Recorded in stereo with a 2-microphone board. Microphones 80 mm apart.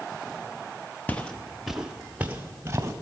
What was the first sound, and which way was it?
Footsteps, 20° left (ahead or behind).